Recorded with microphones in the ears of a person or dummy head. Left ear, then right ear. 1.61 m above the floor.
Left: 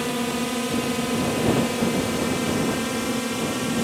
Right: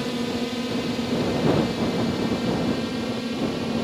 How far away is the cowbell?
I don't hear a cowbell.